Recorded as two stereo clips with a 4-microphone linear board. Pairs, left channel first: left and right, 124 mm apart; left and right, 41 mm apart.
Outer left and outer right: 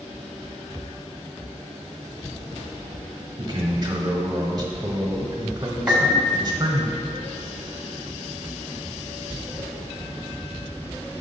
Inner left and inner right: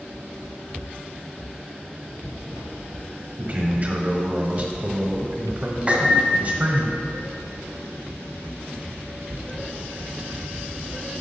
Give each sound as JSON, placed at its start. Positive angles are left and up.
{"t": 3.4, "sound": "a man speaking", "side_deg": -35, "distance_m": 1.3}
{"t": 5.9, "sound": "a piano", "side_deg": -15, "distance_m": 1.1}